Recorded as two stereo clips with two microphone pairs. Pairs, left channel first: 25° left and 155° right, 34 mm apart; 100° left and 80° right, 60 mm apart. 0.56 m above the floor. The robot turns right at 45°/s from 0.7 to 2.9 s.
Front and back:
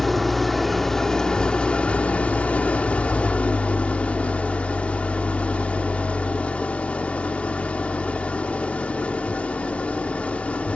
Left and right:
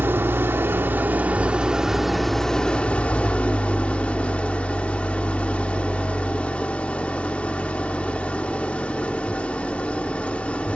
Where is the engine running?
55° right, 1.1 m; by 10.8 s 45° left, 1.1 m.